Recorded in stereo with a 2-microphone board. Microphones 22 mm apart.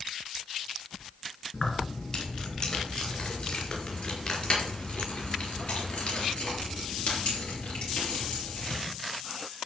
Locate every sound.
1.5 s keys jangling: 30° left (ahead or behind), 3.5 m; by 8.7 s 80° left, 6 m